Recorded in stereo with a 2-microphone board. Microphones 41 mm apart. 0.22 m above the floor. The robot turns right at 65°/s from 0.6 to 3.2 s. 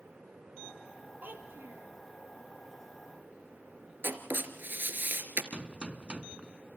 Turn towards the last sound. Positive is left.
turn(degrees=-30)  # may be behind; listen again after turning